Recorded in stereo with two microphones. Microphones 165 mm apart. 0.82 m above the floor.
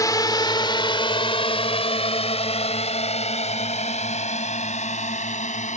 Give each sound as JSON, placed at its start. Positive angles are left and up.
{"t": 0.0, "sound": "a drone", "side_deg": 25}